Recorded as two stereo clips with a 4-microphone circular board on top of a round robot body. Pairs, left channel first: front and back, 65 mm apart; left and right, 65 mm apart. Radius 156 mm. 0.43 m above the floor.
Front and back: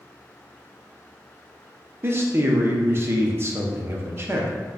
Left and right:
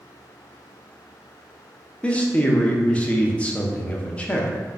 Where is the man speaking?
150° left, 0.9 m.